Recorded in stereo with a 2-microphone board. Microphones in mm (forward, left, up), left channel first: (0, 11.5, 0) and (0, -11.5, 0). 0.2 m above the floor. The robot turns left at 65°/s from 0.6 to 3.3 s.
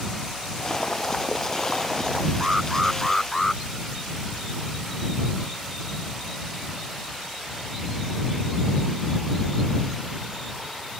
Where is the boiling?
60° left; by 2.3 s 55° right.